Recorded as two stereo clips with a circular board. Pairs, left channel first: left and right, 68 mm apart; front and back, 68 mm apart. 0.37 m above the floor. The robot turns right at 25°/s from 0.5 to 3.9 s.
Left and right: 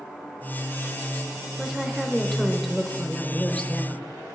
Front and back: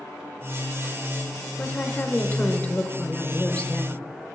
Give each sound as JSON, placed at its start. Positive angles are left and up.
{"t": 1.6, "sound": "a woman speaking", "azimuth_deg": -15, "distance_m": 0.9}